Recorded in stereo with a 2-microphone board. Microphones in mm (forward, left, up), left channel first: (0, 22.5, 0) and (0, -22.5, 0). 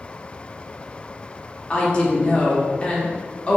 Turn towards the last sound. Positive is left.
turn(degrees=25)  # may be behind; listen again after turning